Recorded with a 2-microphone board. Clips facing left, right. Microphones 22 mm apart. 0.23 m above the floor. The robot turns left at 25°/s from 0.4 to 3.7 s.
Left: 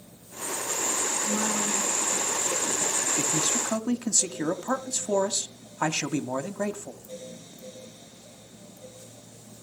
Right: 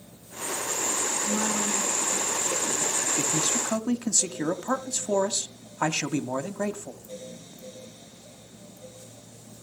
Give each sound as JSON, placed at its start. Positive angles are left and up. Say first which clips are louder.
{"t": 1.2, "sound": "a woman speaking", "louder": "right 1 dB", "azimuth_deg": -35, "distance_m": 7.0}
{"t": 3.2, "sound": "a man speaking", "louder": "even", "side_deg": -35, "distance_m": 1.1}